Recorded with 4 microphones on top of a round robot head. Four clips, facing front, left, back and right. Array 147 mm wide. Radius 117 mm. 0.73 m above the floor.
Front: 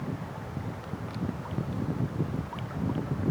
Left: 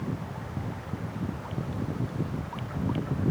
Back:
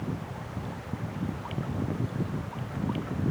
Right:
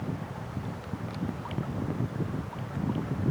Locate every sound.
Only background noise.